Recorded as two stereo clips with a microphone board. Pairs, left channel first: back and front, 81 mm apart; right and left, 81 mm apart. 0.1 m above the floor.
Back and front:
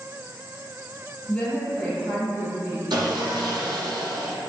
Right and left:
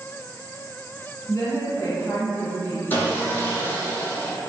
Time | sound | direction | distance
1.3 | a woman speaking | 105° right | 1.6 m
2.9 | sawing | 25° right | 0.7 m